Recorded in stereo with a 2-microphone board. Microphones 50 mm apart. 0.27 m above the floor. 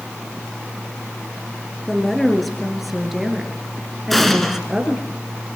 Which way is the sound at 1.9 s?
5° left (ahead or behind).